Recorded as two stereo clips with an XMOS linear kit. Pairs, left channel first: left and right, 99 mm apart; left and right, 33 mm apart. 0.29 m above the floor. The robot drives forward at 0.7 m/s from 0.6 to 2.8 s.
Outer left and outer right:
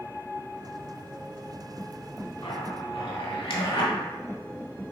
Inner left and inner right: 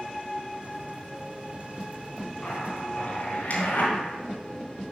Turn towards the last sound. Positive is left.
turn(degrees=60)  # may be behind; listen again after turning